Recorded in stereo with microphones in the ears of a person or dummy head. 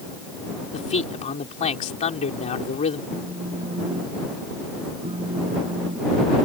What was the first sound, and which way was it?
A man speaking, 40° left (ahead or behind).